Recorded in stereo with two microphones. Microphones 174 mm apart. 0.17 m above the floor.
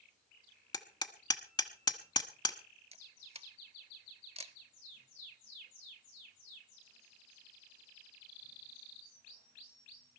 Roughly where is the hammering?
Left.